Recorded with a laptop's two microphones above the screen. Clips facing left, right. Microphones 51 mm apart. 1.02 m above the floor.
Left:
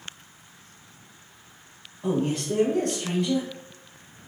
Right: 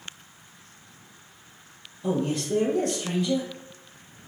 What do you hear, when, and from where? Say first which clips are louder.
2.0 s a man speaking: left 1 dB; 60° left (ahead or behind), 1.4 m